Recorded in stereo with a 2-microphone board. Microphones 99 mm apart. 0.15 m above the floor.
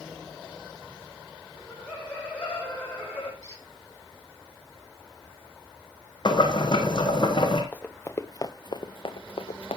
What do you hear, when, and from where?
1.6 s laughter: 10° left (ahead or behind), 8 m
3.4 s a squeak: 35° left (ahead or behind), 5.5 m
6.2 s boiling: 50° left (ahead or behind), 3 m
7.7 s running footsteps: 15° left (ahead or behind), 1.3 m; by 9.8 s 85° left, 1.2 m